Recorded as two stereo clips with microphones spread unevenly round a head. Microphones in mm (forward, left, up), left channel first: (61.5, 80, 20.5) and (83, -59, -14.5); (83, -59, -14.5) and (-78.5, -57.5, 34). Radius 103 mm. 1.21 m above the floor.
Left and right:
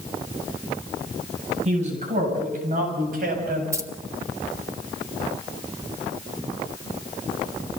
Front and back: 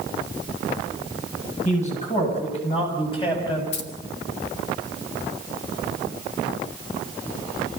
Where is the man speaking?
45° right, 8.5 m; by 3.6 s 65° right, 7.5 m.